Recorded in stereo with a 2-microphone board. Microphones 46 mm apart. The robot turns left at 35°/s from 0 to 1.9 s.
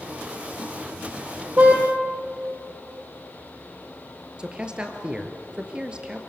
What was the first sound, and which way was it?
A car horn, 35° right (ahead or behind).